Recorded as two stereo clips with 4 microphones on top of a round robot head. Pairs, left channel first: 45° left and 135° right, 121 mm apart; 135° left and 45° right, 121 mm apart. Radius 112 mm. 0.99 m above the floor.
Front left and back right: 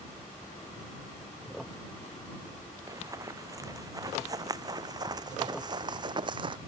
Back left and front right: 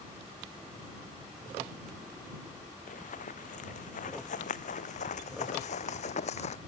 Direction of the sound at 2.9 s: 160° left.